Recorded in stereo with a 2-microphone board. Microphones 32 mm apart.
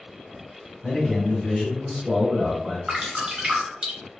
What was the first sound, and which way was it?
A man speaking, 15° left (ahead or behind).